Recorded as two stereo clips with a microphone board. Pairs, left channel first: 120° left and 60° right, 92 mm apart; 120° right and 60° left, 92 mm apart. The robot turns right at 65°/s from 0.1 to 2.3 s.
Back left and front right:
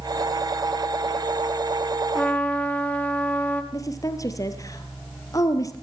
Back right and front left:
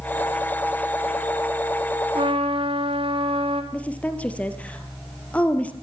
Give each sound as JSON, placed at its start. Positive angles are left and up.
{"t": 2.1, "sound": "a trumpet", "azimuth_deg": 35, "distance_m": 4.0}
{"t": 3.7, "sound": "a woman speaking", "azimuth_deg": 165, "distance_m": 3.0}